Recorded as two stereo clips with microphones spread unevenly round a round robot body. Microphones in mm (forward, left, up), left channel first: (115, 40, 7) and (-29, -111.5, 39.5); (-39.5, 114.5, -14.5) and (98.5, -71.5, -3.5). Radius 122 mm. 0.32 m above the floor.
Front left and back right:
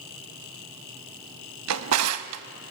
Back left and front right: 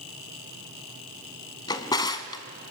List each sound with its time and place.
1.7 s a drawer: 160° right, 0.6 m